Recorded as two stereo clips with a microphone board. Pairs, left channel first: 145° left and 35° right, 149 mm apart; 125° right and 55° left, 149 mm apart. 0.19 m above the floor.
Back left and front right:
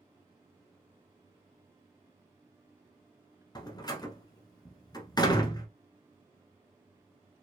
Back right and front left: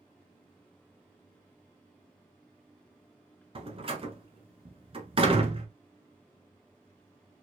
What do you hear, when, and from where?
3.5 s a door slam: 90° left, 1.0 m